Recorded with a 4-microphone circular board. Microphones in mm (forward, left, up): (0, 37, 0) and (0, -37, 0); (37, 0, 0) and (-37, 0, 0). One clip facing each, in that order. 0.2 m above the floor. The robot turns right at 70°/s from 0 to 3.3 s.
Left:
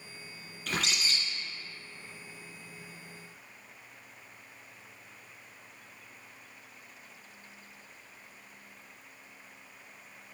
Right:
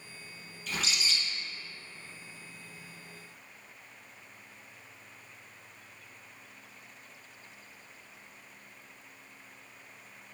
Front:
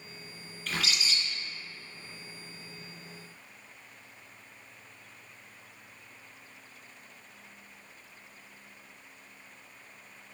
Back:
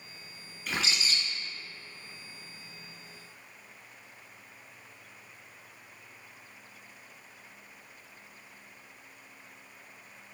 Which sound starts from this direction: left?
A bird, at 0.7 s.